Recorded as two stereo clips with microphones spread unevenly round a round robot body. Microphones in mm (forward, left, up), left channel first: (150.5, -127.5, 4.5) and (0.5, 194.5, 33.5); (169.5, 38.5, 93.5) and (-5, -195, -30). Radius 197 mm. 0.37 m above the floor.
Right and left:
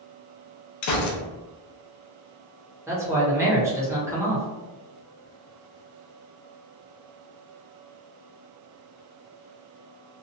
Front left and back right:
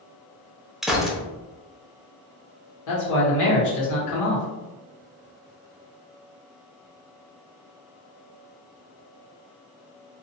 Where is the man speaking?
30° left, 1.3 m.